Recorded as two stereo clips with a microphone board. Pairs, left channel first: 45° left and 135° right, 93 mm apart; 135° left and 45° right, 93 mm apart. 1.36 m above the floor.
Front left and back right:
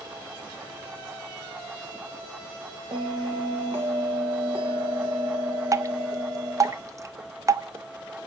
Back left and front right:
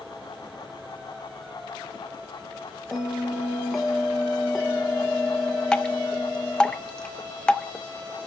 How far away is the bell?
About 1.4 m.